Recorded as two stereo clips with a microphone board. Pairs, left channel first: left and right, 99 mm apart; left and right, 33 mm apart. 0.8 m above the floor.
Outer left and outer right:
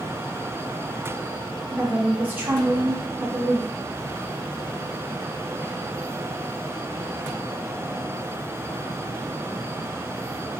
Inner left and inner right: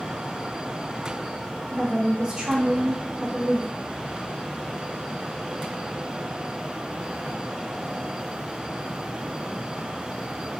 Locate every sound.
1.7 s a woman speaking: 20° right (ahead or behind), 0.6 m